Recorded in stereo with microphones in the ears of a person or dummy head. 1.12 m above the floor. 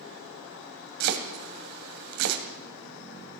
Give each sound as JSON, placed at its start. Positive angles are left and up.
{"t": 1.0, "sound": "chopping", "side_deg": -60, "distance_m": 2.0}